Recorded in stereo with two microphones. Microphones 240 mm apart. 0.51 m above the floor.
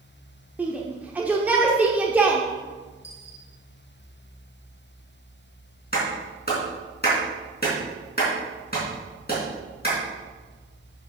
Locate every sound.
0.6 s a shout: 5° right (ahead or behind), 0.9 m
3.0 s a dropped coin: 50° left (ahead or behind), 4 m
5.9 s a clap: 40° left (ahead or behind), 4 m